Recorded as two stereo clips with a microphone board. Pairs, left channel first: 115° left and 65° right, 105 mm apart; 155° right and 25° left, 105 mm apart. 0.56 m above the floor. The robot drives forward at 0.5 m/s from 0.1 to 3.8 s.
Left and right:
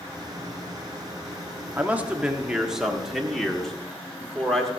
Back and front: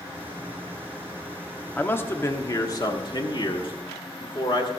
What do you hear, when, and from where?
1.8 s a man speaking: 115° right, 1.1 m; by 4.7 s 160° right, 1.6 m